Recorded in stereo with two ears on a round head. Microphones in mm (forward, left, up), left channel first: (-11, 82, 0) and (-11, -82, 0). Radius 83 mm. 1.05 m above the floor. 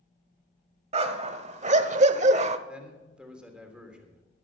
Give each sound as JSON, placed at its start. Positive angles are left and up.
{"t": 0.9, "sound": "a dog barking", "side_deg": -35, "distance_m": 1.4}
{"t": 2.7, "sound": "a man speaking", "side_deg": -5, "distance_m": 3.0}